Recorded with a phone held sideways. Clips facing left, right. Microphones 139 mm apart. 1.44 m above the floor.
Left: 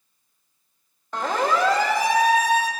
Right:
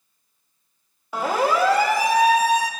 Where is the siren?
5° right (ahead or behind), 3.5 m; by 2.7 s 15° right (ahead or behind), 2.5 m.